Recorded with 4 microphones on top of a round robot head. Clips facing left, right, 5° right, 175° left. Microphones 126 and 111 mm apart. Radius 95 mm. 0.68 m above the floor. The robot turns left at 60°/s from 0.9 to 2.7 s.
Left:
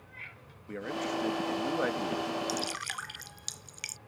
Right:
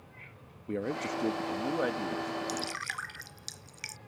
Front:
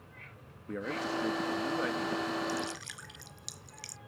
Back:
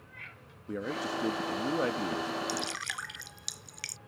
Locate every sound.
0.7 s a man speaking: 110° right; by 2.3 s 165° left
2.5 s dripping: 170° left; by 4.0 s 160° left